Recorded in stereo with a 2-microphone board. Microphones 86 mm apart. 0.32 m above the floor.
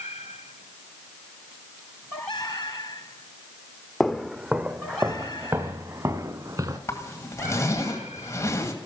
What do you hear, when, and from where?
4.0 s footsteps: centre (ahead or behind), 0.8 m; by 6.8 s 45° right (ahead or behind), 2.5 m
6.9 s a zipper: 35° left (ahead or behind), 2 m